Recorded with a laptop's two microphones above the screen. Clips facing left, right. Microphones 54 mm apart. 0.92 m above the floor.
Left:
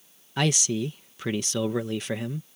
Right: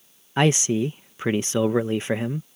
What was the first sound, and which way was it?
A man speaking, 30° right (ahead or behind).